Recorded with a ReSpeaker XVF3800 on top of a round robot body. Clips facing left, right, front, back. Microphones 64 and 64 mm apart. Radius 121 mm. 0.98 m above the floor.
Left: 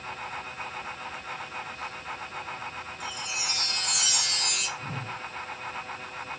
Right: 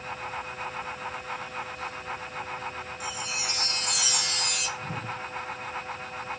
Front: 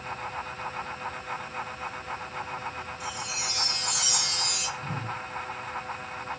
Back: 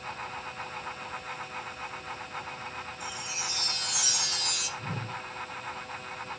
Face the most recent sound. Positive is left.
turn(degrees=-175)